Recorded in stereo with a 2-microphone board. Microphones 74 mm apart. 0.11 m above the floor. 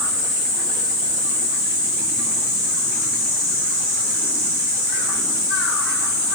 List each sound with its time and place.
Only background noise.